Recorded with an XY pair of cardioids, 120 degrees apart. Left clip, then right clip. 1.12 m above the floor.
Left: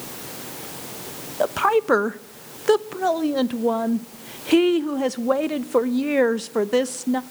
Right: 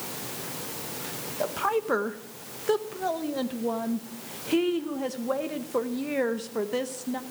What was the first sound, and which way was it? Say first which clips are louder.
A woman speaking: left 8 dB; 40° left.